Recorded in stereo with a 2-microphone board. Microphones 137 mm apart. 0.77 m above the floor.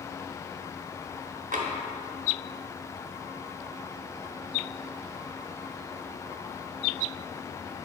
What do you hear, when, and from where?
1.5 s tapping: 75° right (ahead or behind), 0.8 m